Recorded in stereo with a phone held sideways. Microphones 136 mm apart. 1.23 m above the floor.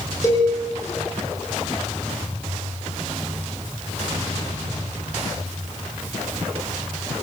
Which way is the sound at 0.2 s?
20° left (ahead or behind).